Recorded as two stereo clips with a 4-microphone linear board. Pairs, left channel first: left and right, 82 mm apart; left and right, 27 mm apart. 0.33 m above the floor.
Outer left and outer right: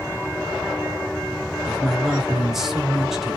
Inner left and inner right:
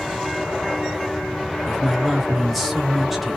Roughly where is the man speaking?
Centre.